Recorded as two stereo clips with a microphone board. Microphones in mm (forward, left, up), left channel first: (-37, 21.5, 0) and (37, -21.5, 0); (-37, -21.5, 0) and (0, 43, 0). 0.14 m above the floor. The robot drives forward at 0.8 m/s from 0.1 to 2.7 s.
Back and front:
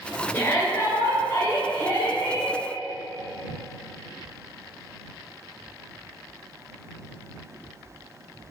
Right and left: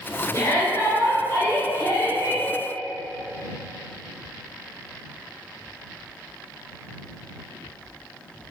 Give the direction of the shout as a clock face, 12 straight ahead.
5 o'clock.